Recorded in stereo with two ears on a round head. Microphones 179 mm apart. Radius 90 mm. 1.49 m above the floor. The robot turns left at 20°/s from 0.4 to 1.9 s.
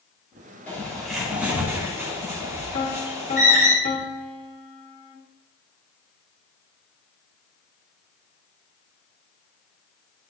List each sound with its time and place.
0.7 s a bird: 10° left (ahead or behind), 4.5 m; by 3.7 s 15° right (ahead or behind), 4.5 m
2.7 s a piano: 35° left (ahead or behind), 1.3 m